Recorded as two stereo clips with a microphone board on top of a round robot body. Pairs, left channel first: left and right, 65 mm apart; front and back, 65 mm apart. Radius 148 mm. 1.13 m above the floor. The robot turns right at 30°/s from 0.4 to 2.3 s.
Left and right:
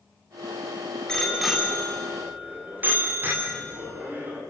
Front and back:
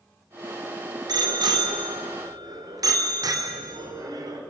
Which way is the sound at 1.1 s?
170° left.